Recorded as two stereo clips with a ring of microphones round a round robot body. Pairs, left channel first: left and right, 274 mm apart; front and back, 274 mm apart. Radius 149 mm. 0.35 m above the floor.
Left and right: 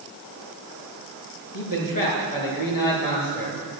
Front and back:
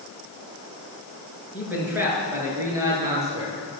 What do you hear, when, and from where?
1.5 s a man speaking: 95° left, 5.5 m; by 3.6 s 100° left, 7.5 m